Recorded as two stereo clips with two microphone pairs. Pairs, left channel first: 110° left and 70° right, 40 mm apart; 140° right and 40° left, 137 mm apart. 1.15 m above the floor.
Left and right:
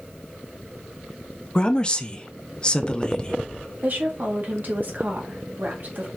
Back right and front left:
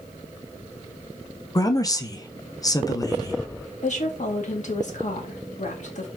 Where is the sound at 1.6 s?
170° left, 0.5 m.